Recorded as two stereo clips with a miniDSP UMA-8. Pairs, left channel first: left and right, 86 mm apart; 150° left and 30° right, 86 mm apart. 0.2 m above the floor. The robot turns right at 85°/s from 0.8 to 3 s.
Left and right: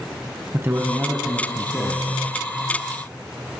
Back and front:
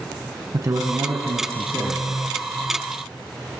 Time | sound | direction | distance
0.5 | a man speaking | 45° right | 1.4 m